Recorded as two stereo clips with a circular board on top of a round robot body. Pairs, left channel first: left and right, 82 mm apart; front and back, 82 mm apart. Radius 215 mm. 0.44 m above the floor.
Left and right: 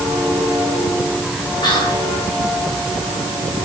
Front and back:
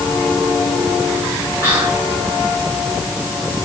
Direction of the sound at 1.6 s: 110° left.